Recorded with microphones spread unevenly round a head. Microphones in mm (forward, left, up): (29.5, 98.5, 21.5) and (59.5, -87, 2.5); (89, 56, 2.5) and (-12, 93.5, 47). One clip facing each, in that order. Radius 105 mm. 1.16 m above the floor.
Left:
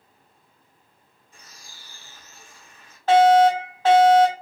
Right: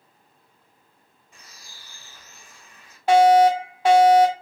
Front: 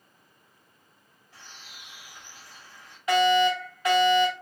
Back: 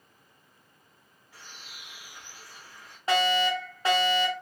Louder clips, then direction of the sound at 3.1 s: Even, front 4 dB; 130° right.